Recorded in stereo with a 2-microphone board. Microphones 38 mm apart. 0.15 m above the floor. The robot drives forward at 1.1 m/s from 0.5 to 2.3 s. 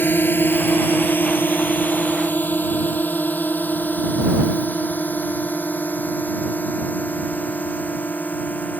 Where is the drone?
60° left (ahead or behind); by 8.8 s 50° left (ahead or behind).